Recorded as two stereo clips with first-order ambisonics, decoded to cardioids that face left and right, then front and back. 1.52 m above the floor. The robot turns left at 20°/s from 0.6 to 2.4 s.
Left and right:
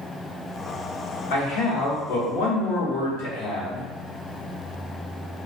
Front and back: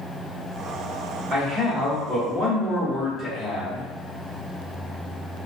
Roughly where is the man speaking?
Behind left.